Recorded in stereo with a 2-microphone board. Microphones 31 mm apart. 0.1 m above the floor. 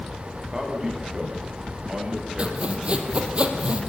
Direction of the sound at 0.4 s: 15° right (ahead or behind).